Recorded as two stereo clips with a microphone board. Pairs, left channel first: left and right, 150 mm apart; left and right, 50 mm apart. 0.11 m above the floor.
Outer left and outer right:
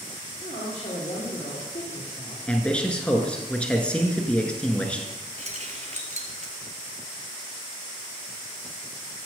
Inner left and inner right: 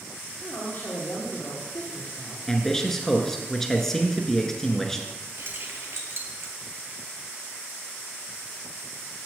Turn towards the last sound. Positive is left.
turn(degrees=-55)  # may be behind; listen again after turning